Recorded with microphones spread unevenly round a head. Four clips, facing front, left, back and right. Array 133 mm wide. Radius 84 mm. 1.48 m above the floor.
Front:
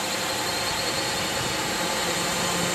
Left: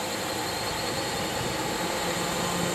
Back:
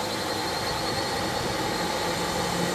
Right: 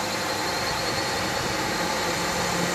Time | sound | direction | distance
0.0 | a drone | 50° right | ?